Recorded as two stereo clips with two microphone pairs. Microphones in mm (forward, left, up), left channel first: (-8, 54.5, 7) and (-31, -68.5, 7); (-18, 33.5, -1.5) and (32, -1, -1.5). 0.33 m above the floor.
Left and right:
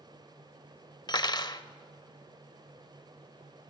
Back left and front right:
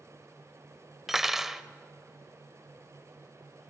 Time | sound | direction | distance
1.1 | cutlery clinking | 45° left | 0.6 m